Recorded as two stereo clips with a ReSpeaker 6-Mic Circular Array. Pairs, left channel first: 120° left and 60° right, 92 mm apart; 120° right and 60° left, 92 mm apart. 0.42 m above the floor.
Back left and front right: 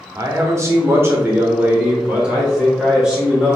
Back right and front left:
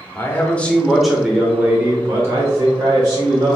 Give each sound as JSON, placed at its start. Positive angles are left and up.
{"t": 0.1, "sound": "a man speaking", "azimuth_deg": -80, "distance_m": 1.1}